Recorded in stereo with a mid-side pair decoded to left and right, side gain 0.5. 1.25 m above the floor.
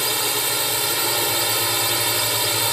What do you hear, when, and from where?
0.0 s a drone: 10° right